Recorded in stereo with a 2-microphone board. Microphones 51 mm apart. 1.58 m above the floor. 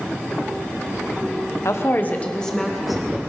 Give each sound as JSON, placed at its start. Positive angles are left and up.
{"t": 1.6, "sound": "a woman speaking", "side_deg": 70, "distance_m": 1.2}